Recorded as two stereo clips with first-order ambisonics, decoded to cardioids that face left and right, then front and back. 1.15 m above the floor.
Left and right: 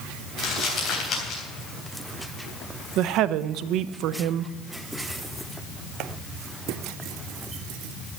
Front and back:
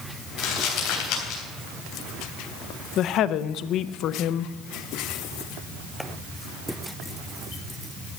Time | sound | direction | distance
0.4 | crumpling | 35° left | 3.5 m
3.0 | a woman speaking | 50° right | 0.5 m